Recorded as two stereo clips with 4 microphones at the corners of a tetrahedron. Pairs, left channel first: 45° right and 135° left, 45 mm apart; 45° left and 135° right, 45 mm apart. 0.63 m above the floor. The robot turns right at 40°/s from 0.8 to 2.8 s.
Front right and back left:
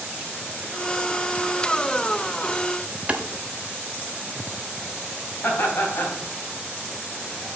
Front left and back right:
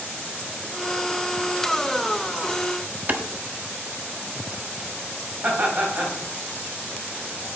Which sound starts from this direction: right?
Laughter, at 5.4 s.